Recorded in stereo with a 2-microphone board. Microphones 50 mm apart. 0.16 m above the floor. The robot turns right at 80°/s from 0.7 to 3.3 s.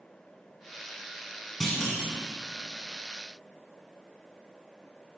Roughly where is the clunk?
Centre.